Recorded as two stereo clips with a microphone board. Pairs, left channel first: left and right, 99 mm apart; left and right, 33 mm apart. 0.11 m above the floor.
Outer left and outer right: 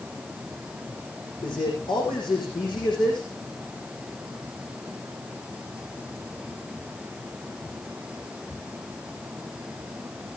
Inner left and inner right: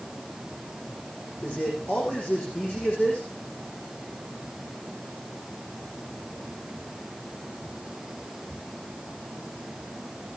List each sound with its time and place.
1.4 s a man speaking: 60° left (ahead or behind), 6.5 m